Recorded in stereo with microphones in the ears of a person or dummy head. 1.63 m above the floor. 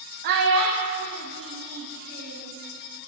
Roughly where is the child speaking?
Right.